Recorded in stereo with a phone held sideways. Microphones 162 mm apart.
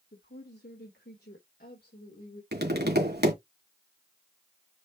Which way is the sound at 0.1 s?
75° left (ahead or behind).